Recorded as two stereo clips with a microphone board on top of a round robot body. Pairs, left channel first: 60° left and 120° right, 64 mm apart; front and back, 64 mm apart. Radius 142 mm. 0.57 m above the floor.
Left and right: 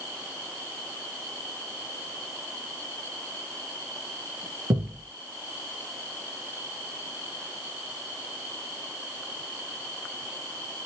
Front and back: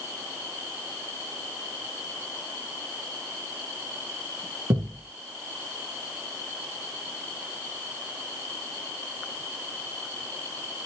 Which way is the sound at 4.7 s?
155° right.